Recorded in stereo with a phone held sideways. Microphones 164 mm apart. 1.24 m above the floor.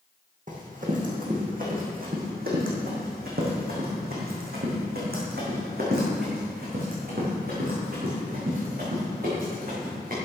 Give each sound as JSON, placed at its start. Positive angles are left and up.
{"t": 0.5, "sound": "running footsteps", "side_deg": -50, "distance_m": 3.5}